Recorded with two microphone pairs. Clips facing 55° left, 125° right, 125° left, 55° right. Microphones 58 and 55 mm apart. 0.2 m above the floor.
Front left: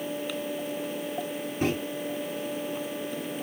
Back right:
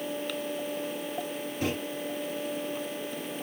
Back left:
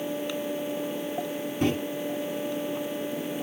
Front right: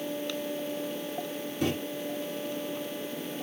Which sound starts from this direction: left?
A microwave, at 1.6 s.